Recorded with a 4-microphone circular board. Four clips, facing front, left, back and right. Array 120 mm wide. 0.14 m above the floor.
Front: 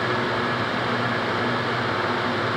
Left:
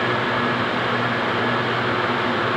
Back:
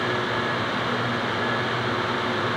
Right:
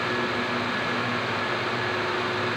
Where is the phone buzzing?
I don't hear a phone buzzing.